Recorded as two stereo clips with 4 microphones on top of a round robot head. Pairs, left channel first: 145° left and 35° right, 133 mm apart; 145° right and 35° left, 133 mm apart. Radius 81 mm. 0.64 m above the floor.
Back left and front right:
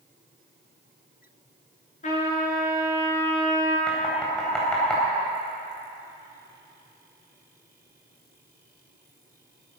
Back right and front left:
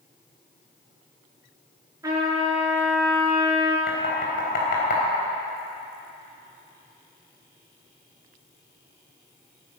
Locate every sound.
2.0 s a trumpet: 105° left, 6.5 m
3.9 s knocking: 130° right, 4 m